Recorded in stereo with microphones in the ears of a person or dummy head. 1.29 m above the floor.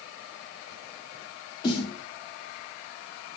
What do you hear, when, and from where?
1.6 s a snare drum: 25° left (ahead or behind), 2.5 m